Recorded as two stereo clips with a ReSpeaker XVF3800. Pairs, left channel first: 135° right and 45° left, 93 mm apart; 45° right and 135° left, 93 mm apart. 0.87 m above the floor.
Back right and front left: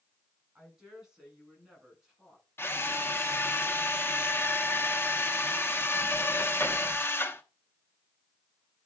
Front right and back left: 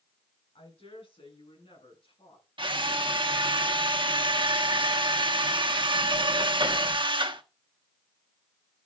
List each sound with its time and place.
0.6 s a woman speaking: 35° right, 7 m; by 2.5 s 40° right, 8 m
2.6 s a drill: 160° left, 1.1 m